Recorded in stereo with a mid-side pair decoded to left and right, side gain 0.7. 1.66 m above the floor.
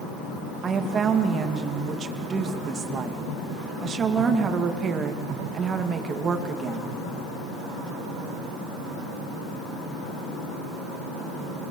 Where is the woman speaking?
35° right, 2.5 m.